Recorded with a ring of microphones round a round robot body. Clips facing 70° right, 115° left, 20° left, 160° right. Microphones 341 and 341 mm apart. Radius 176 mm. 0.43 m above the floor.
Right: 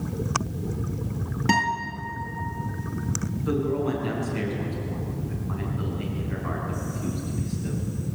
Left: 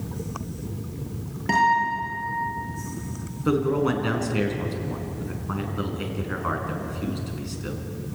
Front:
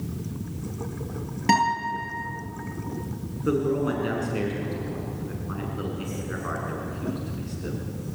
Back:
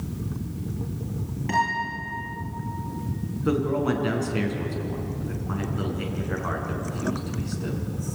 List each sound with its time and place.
1.5 s a guitar: 5° right, 9 m
3.5 s a man speaking: 130° left, 5 m